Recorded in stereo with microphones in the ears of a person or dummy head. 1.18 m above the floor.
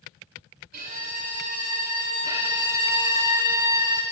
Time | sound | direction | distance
0.7 | a violin | 55° right (ahead or behind) | 3.5 m
2.3 | a violin | 15° right (ahead or behind) | 0.8 m